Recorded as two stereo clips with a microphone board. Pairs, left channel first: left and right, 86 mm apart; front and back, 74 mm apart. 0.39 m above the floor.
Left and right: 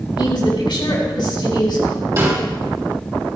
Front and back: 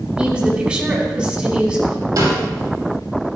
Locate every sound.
0.2 s a woman speaking: 105° left, 3.5 m
2.2 s a snare drum: 145° right, 5.5 m